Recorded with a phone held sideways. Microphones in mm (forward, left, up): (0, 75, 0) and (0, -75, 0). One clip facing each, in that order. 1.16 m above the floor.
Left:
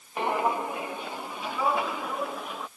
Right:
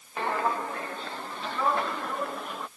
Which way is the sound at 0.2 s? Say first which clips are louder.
Left 2 dB; 15° left (ahead or behind).